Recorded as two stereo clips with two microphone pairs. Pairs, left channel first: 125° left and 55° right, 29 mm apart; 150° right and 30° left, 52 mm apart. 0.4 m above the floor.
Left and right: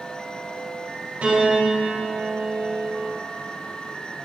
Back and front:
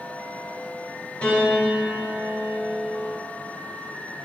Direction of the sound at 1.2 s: 85° right.